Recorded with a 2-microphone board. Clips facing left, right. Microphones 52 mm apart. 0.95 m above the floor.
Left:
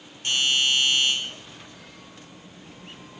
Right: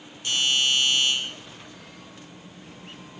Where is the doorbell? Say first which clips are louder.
Left 1 dB; 30° left (ahead or behind), 4 m.